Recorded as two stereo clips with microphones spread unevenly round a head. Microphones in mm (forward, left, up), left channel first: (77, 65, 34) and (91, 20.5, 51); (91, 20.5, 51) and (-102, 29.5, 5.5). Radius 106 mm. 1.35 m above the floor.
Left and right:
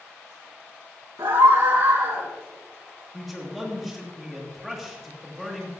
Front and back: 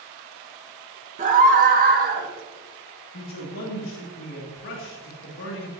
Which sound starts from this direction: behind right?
A scream, at 1.2 s.